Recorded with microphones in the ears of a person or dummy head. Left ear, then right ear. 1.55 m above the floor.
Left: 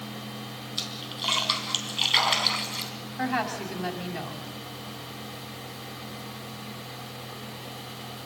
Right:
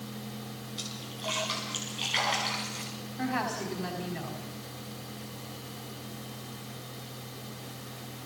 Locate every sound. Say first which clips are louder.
0.8 s a splash: left 7 dB; 25° left (ahead or behind), 3.5 m
3.2 s a woman speaking: left 3 dB; 25° left (ahead or behind), 4.5 m